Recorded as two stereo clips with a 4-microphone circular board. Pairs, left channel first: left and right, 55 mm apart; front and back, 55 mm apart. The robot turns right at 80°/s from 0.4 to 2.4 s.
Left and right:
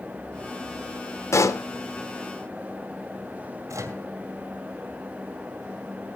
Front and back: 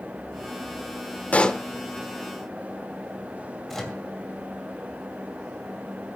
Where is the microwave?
85° right, 2.5 m.